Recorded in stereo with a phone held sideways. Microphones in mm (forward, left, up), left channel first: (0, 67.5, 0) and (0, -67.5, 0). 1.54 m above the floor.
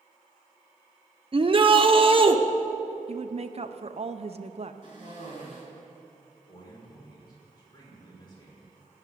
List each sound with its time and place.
1.3 s a shout: 40° right (ahead or behind), 0.9 m
3.1 s a woman speaking: 50° right (ahead or behind), 0.7 m
4.8 s a cough: 60° left (ahead or behind), 4 m
6.5 s a man speaking: 25° left (ahead or behind), 5 m